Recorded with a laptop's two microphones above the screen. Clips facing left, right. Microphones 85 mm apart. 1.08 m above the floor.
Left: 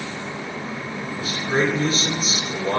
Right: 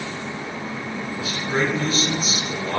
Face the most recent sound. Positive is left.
turn(degrees=50)  # may be behind; listen again after turning